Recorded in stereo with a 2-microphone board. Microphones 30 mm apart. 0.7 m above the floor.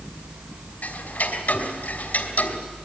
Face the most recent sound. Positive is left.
turn(degrees=55)  # may be behind; listen again after turning